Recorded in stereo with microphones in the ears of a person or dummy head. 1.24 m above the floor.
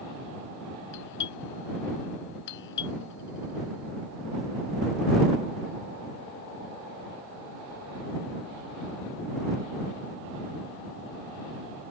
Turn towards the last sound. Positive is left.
turn(degrees=65)  # may be behind; listen again after turning